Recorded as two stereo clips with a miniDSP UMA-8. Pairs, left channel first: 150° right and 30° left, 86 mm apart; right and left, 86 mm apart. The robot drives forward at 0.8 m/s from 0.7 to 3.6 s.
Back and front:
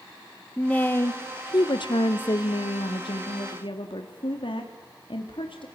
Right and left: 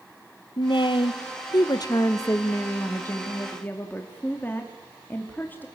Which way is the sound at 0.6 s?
75° right.